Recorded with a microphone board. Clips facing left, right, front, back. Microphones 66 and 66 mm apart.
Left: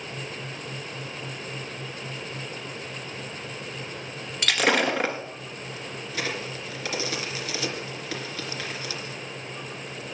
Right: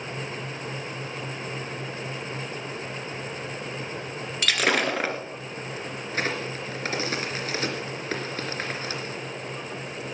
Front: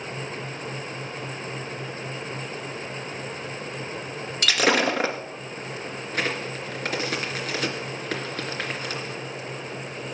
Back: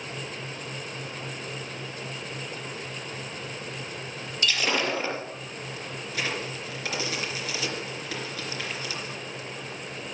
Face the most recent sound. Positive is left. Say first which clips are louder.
# right 3 dB, front 4 dB
turn(degrees=-40)